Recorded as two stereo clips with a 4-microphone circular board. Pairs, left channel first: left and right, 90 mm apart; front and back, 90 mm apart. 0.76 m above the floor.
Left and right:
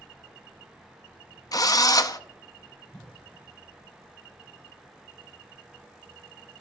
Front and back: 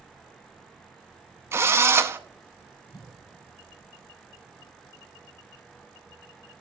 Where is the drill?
125° left, 0.5 m.